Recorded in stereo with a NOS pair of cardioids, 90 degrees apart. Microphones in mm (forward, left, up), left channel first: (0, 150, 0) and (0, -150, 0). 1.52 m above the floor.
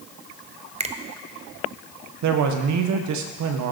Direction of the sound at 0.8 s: 20° right.